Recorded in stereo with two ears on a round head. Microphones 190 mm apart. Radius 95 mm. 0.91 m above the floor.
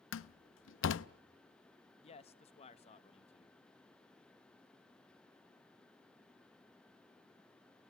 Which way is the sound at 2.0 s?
30° left (ahead or behind).